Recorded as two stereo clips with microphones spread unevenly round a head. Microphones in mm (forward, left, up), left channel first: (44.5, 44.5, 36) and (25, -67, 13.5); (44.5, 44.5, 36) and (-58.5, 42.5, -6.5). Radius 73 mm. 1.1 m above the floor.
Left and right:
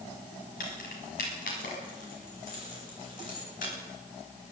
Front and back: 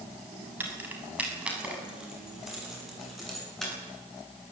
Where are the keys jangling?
110° left, 5.5 m; by 3.7 s 85° left, 9.5 m.